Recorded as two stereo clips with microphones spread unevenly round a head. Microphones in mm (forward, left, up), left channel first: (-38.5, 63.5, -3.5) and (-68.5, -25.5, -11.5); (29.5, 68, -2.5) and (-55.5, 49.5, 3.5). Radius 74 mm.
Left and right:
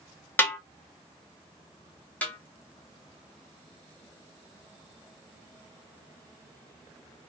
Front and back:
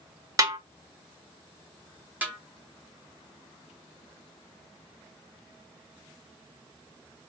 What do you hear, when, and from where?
0.4 s a snare drum: 145° left, 1.0 m
2.2 s a snare drum: 135° left, 0.8 m